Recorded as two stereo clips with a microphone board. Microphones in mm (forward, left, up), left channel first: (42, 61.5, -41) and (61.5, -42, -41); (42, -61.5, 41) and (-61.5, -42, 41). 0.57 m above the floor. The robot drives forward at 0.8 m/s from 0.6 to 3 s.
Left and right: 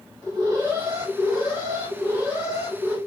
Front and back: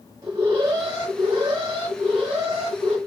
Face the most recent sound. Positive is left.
turn(degrees=-155)